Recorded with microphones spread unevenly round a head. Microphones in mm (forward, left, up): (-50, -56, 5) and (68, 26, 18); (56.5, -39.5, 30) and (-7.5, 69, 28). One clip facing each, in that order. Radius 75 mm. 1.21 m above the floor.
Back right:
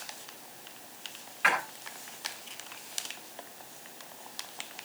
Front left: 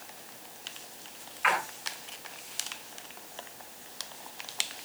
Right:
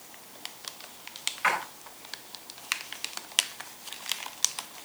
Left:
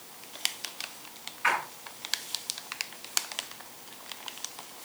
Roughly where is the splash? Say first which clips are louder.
Front left 1 dB, right 1 dB; right.